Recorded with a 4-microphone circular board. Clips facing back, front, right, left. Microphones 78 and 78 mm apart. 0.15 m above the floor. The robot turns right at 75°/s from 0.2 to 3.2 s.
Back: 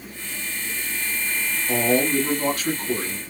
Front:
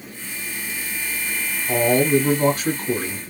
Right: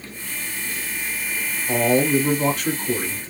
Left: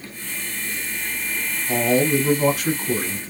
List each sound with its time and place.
1.7 s a man speaking: 55° right, 1.0 m; by 3.2 s 60° left, 1.0 m